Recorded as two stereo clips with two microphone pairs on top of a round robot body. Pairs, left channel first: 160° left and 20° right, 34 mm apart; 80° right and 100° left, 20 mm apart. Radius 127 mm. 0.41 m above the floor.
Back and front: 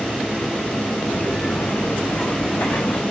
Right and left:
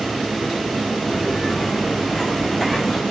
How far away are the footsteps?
About 3 m.